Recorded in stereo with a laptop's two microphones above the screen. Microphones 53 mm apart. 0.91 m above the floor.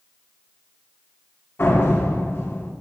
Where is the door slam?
45° left (ahead or behind), 1.7 m.